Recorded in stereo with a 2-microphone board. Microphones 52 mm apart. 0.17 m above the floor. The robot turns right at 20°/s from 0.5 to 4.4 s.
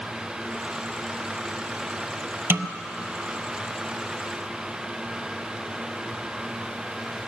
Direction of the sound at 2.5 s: 50° right (ahead or behind).